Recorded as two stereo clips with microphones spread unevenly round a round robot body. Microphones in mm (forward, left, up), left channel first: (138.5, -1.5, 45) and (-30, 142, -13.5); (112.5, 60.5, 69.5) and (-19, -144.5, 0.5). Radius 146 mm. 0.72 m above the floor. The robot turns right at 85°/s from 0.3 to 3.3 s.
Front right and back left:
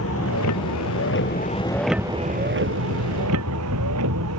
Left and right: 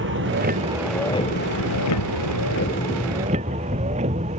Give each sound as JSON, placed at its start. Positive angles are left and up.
{"t": 0.0, "sound": "a vehicle", "azimuth_deg": -85}